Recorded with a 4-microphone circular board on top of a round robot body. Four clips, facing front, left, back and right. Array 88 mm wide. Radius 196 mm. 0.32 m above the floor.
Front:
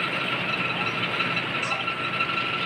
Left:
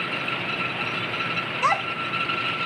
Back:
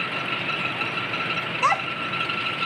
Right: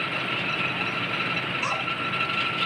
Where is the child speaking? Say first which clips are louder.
Left 9 dB, back 6 dB; 135° left, 1.8 m.